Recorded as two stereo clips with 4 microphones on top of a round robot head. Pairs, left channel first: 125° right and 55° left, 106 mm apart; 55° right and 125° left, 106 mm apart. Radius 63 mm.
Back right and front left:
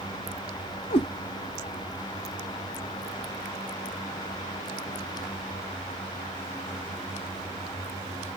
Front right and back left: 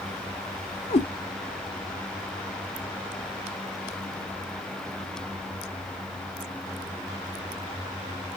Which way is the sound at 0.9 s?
90° right.